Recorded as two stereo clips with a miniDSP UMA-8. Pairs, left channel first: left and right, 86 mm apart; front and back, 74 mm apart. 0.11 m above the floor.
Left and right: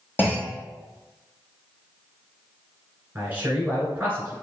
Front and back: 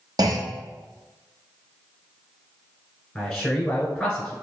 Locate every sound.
0.2 s a clunk: 155° left, 1.0 m
3.1 s a man speaking: 60° right, 1.5 m